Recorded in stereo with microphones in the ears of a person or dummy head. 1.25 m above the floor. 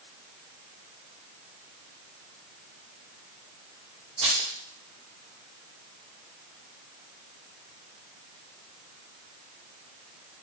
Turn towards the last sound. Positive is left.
turn(degrees=-25)  # may be behind; listen again after turning